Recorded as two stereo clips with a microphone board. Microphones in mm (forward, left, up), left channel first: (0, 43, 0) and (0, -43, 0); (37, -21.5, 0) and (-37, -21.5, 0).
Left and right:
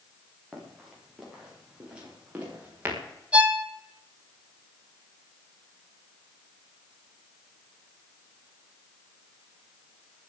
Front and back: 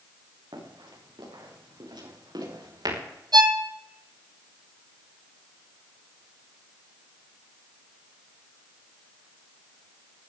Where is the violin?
165° right, 1.2 m.